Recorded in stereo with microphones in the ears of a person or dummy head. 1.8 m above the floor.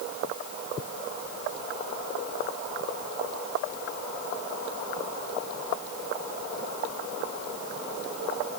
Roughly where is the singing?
I don't hear singing.